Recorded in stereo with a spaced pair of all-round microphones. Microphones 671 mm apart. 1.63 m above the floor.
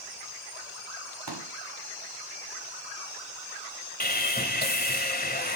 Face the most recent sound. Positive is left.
turn(degrees=15)  # may be behind; listen again after turning